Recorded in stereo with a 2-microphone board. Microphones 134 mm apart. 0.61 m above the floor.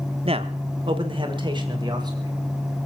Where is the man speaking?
45° right (ahead or behind), 1.1 m; by 2.4 s 30° right (ahead or behind), 3 m.